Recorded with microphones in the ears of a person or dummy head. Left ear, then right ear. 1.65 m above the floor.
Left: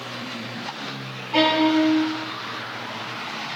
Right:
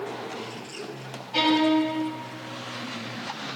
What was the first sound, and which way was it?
A violin, 45° left (ahead or behind).